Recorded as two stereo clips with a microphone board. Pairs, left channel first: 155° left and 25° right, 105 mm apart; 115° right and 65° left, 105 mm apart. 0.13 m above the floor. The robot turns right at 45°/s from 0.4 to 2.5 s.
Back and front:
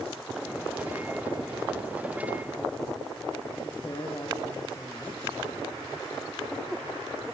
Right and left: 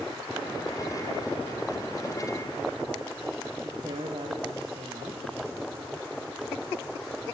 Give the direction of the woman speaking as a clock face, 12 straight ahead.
9 o'clock.